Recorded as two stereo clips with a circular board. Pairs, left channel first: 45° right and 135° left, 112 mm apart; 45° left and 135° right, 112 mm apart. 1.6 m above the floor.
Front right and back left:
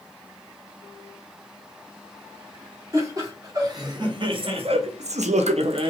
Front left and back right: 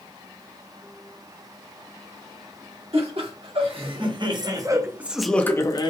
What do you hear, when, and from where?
2.9 s laughter: 165° right, 1.6 m; by 5.9 s 95° left, 0.6 m